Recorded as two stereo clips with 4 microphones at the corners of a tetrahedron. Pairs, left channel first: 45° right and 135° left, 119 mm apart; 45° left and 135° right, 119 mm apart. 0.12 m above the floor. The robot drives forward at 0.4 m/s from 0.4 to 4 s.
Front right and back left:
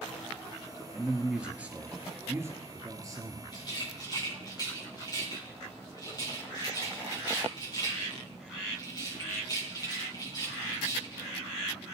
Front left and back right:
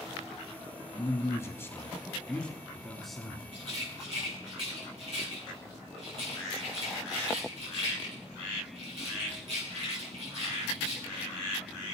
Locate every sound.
0.9 s a man speaking: 50° left, 1.4 m; by 3.4 s 140° left, 1.4 m
3.5 s a rattle: 100° right, 4 m